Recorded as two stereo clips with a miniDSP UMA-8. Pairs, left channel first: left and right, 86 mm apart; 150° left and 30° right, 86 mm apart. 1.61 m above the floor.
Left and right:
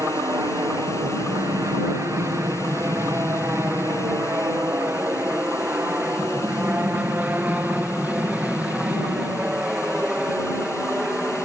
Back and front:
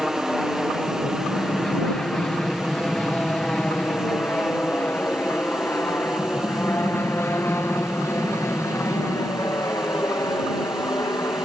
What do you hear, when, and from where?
0.0 s an aircraft: 120° right; by 11.5 s 165° right